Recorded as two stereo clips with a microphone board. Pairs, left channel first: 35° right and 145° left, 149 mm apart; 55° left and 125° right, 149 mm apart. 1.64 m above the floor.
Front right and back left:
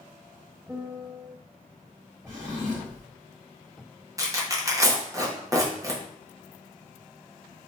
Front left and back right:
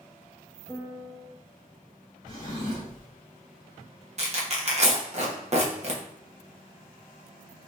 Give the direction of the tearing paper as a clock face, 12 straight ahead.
5 o'clock.